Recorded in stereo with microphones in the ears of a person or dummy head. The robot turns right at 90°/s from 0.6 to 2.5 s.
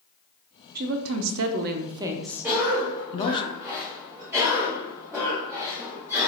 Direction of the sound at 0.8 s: 135° right.